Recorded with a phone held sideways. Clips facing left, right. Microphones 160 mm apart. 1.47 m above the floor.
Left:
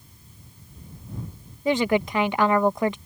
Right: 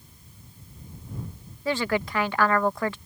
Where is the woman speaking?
20° left (ahead or behind).